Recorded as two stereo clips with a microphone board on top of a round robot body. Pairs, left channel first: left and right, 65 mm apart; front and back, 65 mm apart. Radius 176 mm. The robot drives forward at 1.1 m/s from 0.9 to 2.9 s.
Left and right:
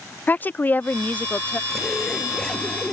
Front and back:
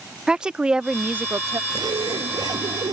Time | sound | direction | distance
0.3 | a woman speaking | 115° left | ?
1.7 | a zipper | 175° left | ?